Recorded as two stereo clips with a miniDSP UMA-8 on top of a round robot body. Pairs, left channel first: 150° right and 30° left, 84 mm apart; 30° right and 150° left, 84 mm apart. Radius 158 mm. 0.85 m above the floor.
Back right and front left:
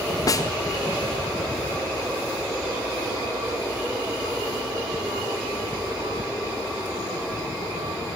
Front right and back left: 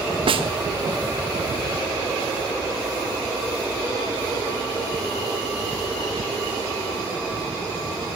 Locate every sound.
0.3 s a snare drum: 160° left, 2.5 m